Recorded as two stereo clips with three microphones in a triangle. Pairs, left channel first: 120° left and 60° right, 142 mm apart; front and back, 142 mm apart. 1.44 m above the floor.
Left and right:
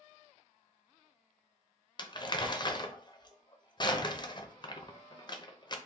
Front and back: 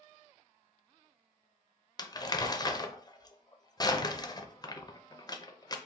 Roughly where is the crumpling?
Ahead left.